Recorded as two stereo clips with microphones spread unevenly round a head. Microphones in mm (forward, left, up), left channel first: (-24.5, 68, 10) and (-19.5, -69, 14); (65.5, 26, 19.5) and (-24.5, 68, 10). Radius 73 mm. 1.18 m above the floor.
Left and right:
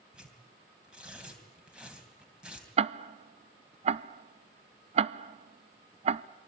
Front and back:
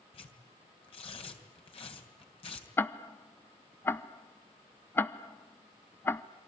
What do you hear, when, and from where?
0.1 s tearing paper: 5° right, 3 m
2.8 s ticking: 95° right, 0.7 m